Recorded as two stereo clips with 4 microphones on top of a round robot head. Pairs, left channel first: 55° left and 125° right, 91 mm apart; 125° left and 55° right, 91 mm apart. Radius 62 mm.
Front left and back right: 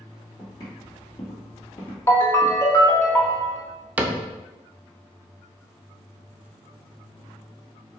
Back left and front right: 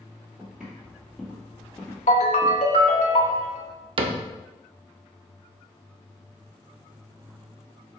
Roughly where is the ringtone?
Behind left.